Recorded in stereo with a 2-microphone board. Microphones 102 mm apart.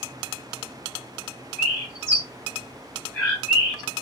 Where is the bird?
5° right (ahead or behind), 2.0 m.